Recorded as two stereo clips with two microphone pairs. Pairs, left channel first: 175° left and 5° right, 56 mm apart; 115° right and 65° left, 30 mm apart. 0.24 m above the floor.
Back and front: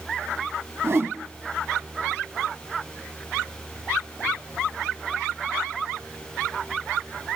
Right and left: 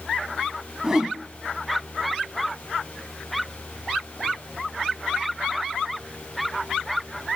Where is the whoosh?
10° left, 0.7 m.